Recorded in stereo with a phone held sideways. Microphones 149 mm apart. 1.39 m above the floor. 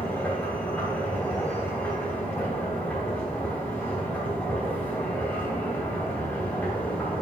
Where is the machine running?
10° left (ahead or behind), 3 m.